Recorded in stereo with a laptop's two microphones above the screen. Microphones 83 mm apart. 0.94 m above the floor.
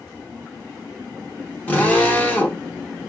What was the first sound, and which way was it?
A drill, 20° left (ahead or behind).